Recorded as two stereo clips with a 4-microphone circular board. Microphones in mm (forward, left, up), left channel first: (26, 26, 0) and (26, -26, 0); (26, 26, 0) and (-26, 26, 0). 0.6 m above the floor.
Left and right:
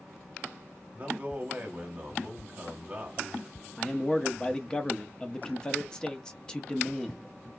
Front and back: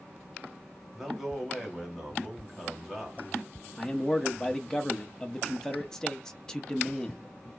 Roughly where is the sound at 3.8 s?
Ahead left.